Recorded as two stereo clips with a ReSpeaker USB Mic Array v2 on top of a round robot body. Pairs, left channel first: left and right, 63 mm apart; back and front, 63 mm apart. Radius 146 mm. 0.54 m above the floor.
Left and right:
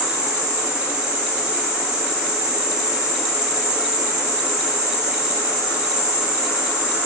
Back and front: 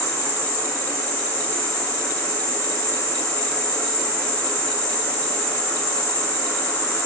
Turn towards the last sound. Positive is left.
turn(degrees=-160)